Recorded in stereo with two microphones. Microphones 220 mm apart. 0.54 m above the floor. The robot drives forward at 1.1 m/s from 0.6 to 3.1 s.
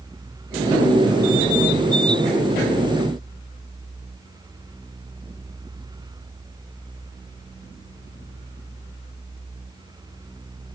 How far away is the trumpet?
No trumpet in this recording.